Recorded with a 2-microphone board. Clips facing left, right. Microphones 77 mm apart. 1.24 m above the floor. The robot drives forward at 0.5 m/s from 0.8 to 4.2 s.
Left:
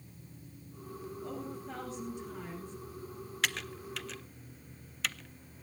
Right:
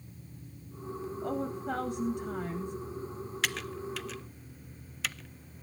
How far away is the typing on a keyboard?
About 0.9 m.